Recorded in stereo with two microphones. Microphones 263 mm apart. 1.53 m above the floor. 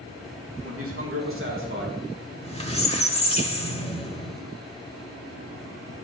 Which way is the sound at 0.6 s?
60° right (ahead or behind).